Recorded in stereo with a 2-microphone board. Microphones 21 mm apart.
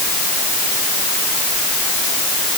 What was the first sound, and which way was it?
Only background noise.